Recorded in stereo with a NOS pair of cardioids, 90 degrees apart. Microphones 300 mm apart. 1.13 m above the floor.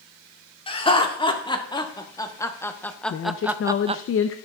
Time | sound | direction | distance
0.7 | laughter | 20° left | 2.5 m
3.1 | a woman speaking | 45° left | 0.8 m